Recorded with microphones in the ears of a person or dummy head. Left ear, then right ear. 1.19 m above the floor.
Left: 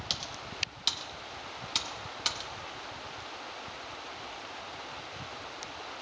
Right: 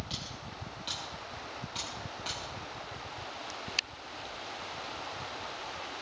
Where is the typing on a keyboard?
65° left (ahead or behind), 1.1 m.